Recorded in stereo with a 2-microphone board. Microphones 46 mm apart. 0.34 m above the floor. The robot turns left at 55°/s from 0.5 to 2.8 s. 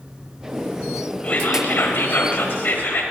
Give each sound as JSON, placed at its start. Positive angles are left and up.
{"t": 1.2, "sound": "whispering", "azimuth_deg": 145, "distance_m": 1.2}